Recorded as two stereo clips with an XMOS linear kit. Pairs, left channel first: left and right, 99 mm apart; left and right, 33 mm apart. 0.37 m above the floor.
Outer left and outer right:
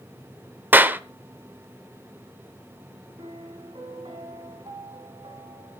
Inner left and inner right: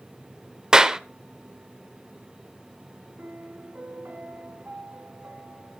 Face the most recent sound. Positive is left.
turn(degrees=-65)  # may be behind; listen again after turning